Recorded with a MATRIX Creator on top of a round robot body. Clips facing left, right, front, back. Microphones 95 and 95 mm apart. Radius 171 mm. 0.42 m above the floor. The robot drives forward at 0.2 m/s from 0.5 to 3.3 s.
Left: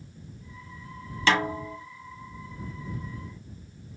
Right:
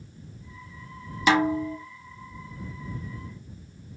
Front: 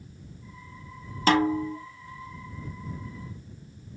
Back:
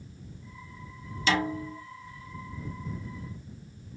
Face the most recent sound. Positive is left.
turn(degrees=-40)